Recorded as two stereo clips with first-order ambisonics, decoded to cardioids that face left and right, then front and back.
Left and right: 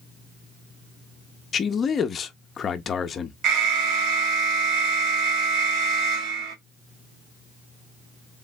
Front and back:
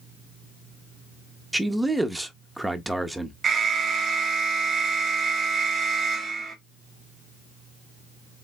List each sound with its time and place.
1.5 s a man speaking: 100° left, 0.6 m
3.4 s an alarm: 115° right, 1.0 m